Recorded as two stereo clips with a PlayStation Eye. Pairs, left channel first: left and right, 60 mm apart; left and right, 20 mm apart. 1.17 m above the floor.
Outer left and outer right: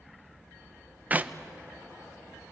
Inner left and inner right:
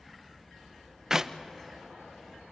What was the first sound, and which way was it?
A clap, 30° right (ahead or behind).